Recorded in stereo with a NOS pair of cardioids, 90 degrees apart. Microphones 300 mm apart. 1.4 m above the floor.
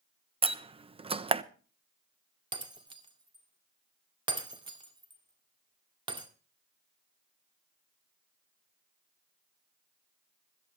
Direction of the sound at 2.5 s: 15° right.